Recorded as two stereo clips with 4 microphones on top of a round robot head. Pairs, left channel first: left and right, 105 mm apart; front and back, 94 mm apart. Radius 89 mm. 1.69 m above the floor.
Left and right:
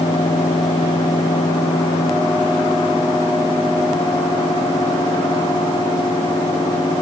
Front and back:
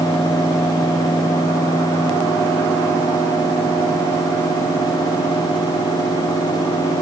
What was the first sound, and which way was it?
Only background noise.